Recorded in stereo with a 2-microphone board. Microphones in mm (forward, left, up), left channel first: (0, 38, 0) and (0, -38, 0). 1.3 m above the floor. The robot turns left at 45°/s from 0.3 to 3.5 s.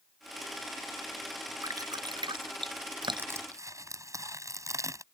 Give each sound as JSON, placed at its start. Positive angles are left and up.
{"t": 1.6, "sound": "dripping", "side_deg": -45}
{"t": 3.2, "sound": "crushing", "side_deg": -25}